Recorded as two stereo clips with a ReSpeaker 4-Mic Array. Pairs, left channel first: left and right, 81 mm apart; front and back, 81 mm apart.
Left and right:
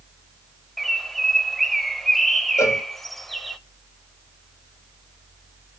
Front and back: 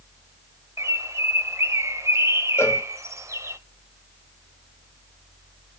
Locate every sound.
0.8 s a bird: 175° left, 0.6 m
2.6 s a cowbell: 50° left, 1.0 m